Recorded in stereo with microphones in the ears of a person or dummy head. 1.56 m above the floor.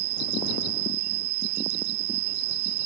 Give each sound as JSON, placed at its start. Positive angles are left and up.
{"t": 0.0, "sound": "an insect", "side_deg": -80}